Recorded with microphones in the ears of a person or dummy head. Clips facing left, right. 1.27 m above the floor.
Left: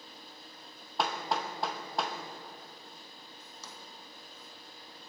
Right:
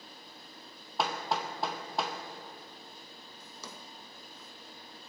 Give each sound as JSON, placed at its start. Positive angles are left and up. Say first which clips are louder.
{"t": 1.0, "sound": "hammering", "louder": "even", "side_deg": 0, "distance_m": 0.7}
{"t": 3.4, "sound": "a drawer", "louder": "right 3 dB", "side_deg": -65, "distance_m": 0.8}